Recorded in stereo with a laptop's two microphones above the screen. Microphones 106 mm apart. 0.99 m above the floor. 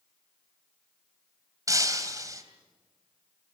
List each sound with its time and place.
1.7 s breaking glass: 35° right (ahead or behind), 2.5 m